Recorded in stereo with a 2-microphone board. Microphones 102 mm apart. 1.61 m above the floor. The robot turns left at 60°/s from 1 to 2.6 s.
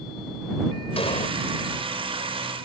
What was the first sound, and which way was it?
An explosion, 65° left (ahead or behind).